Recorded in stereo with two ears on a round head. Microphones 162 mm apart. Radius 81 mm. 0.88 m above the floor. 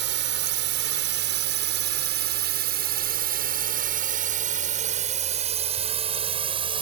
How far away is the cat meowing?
I don't hear a cat meowing.